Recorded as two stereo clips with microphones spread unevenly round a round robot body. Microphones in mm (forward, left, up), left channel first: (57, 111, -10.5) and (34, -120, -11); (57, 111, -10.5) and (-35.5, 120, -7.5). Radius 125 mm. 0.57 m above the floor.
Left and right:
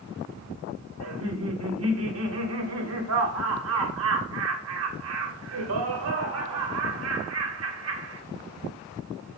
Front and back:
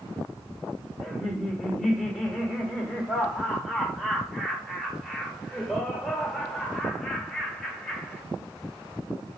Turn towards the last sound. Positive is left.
turn(degrees=-95)